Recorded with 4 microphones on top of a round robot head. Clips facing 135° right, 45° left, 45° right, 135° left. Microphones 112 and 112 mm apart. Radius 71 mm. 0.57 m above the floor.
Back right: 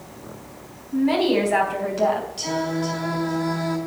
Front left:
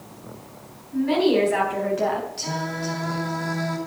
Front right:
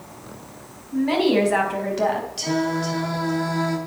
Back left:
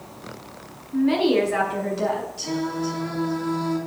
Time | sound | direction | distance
0.9 | a woman speaking | 90° right | 5 m
2.4 | singing | 55° right | 2.5 m